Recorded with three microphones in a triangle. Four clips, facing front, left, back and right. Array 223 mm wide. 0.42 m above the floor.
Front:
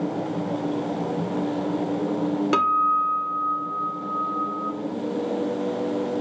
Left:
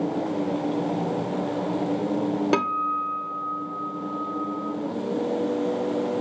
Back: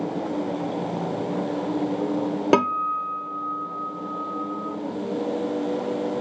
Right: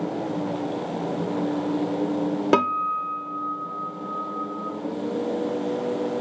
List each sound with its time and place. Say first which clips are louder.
2.5 s a guitar: right 2 dB, even; 145° right, 0.5 m